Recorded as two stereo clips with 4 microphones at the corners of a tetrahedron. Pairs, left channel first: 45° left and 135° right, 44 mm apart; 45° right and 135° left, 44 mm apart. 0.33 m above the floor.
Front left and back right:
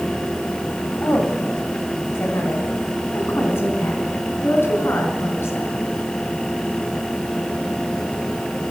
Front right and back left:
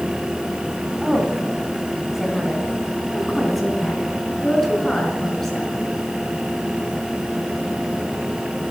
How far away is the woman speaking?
About 3 m.